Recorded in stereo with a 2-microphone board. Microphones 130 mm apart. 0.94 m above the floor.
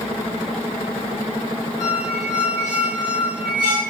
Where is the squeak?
70° right (ahead or behind), 1.8 m.